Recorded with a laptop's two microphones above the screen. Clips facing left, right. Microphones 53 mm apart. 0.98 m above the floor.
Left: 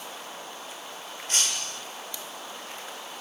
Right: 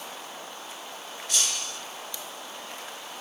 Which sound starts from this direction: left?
Breaking glass, at 1.3 s.